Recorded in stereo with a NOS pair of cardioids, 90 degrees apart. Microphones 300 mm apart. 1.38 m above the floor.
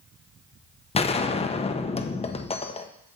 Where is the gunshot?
20° left, 0.8 m.